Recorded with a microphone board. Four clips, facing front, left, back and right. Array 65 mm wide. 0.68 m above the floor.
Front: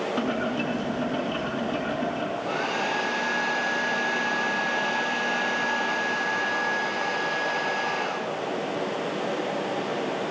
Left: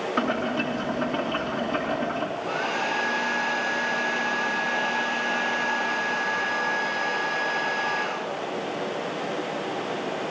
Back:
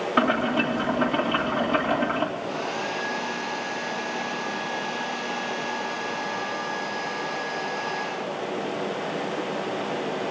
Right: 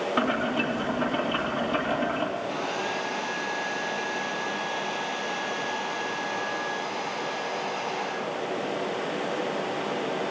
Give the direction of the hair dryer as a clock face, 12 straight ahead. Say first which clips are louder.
Left 3 dB, front 2 dB; 10 o'clock.